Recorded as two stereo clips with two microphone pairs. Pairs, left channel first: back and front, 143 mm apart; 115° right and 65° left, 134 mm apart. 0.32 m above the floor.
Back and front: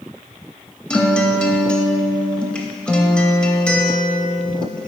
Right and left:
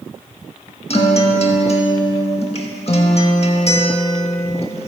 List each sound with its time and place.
0.9 s a guitar: 100° right, 0.7 m